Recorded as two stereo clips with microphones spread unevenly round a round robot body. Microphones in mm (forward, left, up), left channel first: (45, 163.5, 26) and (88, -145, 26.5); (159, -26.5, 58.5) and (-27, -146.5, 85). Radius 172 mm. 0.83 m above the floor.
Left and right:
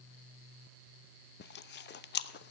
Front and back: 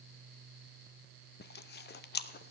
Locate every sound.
1.4 s chewing: 45° left, 0.6 m